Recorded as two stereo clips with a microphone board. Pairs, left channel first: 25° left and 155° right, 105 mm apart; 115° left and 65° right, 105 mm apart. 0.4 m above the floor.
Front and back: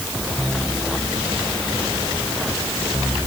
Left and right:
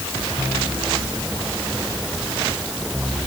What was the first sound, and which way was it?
Only background noise.